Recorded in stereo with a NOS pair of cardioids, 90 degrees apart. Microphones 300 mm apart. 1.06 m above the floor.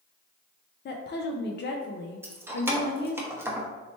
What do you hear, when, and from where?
0.8 s a woman speaking: 35° left, 0.5 m
2.2 s keys jangling: 10° right, 0.7 m